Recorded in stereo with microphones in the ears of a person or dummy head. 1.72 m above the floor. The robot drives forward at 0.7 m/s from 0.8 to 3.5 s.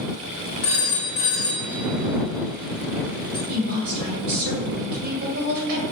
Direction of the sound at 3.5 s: 55° right (ahead or behind).